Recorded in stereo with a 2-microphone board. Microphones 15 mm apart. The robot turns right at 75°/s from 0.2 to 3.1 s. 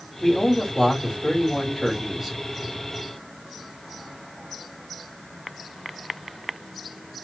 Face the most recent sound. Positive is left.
turn(degrees=-100)